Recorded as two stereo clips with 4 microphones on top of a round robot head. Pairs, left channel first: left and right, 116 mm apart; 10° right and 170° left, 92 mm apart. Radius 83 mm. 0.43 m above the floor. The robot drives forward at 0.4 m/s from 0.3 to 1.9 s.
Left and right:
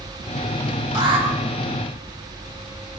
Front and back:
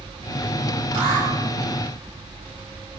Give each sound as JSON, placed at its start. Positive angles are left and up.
{"t": 0.9, "sound": "an alarm", "azimuth_deg": -140, "distance_m": 5.0}